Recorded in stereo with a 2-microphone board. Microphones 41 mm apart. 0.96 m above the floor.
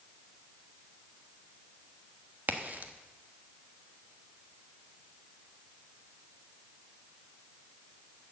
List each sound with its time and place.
2.5 s a crack: 45° right (ahead or behind), 1.1 m